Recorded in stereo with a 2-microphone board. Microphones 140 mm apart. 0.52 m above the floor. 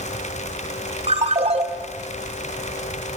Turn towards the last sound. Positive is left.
turn(degrees=-50)  # may be behind; listen again after turning